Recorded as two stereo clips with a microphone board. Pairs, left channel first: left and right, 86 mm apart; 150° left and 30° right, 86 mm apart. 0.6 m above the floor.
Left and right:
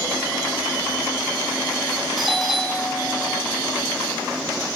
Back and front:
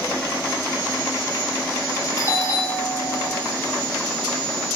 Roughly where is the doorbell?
Behind.